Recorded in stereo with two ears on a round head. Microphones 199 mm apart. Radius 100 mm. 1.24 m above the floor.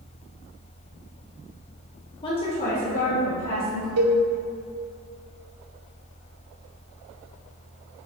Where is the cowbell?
75° right (ahead or behind), 0.8 m.